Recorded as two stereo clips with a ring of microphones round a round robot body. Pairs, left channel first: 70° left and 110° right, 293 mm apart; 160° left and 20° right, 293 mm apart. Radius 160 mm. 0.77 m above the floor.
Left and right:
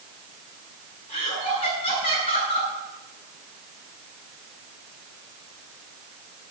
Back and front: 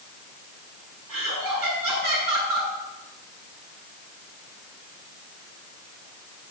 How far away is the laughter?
About 8 m.